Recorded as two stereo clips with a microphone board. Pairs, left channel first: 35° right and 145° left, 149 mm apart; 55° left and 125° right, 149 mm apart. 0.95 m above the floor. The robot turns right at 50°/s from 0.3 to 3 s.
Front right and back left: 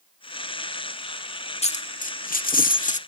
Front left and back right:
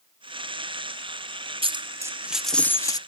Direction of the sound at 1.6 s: 75° right.